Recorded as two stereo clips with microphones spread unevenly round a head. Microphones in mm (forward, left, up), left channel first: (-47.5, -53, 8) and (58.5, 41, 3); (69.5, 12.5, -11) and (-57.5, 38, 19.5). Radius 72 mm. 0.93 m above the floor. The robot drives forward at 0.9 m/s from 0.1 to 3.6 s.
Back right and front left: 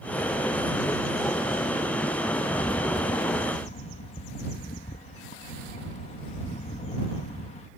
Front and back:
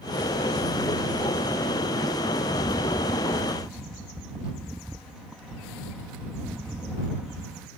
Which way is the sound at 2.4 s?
60° right.